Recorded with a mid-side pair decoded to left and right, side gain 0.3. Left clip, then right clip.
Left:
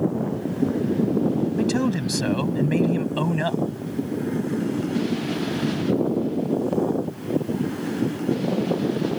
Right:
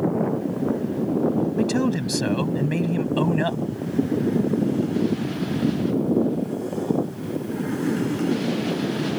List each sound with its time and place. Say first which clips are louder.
1.6 s a man speaking: right 1 dB; straight ahead